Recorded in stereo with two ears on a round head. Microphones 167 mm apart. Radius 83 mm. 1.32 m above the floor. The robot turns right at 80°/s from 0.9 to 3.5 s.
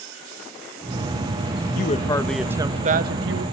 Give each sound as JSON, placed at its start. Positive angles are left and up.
{"t": 1.8, "sound": "a woman speaking", "azimuth_deg": 130, "distance_m": 1.2}